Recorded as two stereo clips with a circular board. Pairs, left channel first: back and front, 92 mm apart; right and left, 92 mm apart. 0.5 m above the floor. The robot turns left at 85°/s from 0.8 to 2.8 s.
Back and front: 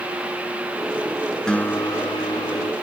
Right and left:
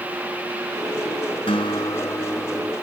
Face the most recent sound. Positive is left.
turn(degrees=150)